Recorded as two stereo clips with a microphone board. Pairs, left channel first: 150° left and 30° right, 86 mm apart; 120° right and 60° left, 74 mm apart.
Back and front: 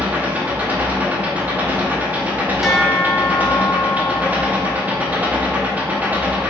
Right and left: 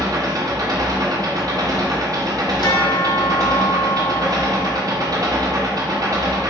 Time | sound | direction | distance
0.0 | an engine running | 40° left | 0.8 m
2.6 | a bell | 115° right | 0.9 m